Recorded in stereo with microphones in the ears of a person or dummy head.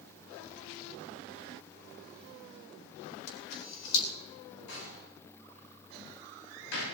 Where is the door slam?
75° left (ahead or behind), 7 m.